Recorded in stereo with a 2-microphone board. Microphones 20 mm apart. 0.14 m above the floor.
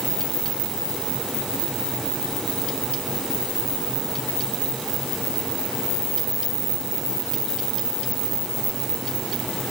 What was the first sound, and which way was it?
Only background noise.